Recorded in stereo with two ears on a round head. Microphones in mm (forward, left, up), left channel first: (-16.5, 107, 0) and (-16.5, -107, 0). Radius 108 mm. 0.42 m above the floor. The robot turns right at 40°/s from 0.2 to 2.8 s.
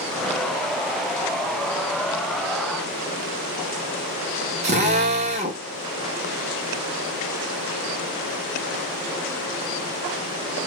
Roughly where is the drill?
Right.